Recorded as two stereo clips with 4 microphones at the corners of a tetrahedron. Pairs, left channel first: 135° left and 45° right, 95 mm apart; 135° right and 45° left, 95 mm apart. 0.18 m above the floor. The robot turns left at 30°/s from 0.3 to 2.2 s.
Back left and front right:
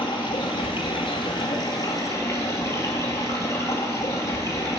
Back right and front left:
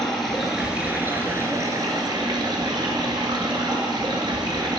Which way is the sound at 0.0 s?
135° left.